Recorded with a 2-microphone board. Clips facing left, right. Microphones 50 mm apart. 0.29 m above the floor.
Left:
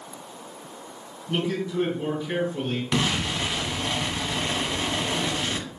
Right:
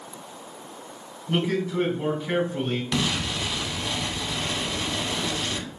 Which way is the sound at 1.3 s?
60° right (ahead or behind).